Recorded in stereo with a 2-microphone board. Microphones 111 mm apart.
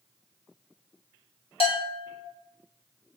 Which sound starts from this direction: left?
A bell, at 1.6 s.